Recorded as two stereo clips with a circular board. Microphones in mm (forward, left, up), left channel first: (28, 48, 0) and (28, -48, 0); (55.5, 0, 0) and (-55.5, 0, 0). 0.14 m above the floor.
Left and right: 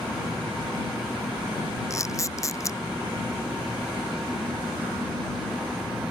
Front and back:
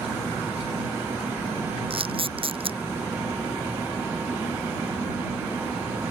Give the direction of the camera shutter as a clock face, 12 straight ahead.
7 o'clock.